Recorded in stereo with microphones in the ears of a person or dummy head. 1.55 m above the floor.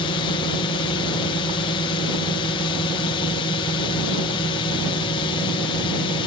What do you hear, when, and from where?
0.0 s a drone: 25° left (ahead or behind)